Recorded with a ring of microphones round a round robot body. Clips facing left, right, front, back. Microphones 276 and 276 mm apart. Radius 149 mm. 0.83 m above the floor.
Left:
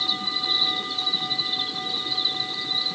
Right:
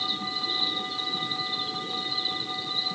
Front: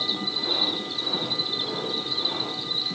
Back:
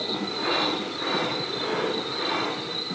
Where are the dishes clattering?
I don't hear dishes clattering.